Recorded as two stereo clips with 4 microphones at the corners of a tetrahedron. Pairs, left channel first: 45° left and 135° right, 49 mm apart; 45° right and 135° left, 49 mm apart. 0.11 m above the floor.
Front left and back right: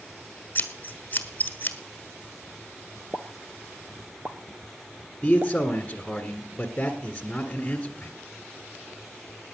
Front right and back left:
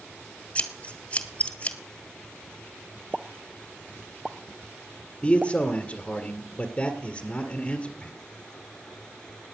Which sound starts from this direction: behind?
A pop, at 3.1 s.